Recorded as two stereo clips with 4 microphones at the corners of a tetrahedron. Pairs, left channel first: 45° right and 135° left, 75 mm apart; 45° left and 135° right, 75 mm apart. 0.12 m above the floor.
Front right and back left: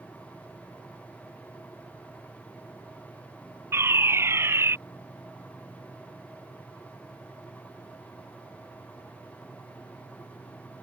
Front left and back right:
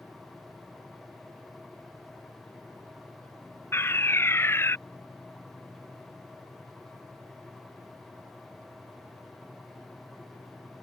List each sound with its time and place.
3.7 s a fire alarm: 90° left